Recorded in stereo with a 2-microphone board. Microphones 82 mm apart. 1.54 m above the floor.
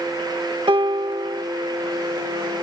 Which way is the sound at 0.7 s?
85° right.